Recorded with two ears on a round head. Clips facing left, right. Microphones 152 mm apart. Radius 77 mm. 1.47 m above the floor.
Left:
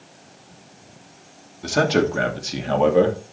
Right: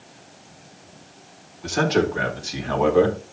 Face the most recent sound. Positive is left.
turn(degrees=25)  # may be behind; listen again after turning